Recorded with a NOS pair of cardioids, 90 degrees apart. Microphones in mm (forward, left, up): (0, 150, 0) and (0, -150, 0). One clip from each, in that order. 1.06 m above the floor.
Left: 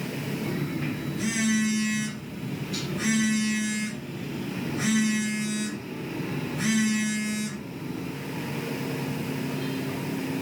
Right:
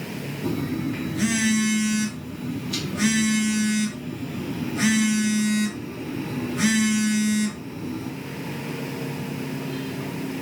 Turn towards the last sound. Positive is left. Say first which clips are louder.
# right 7 dB
turn(degrees=-65)